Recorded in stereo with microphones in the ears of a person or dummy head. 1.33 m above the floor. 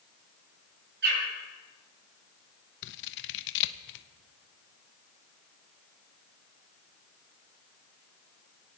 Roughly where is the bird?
Right.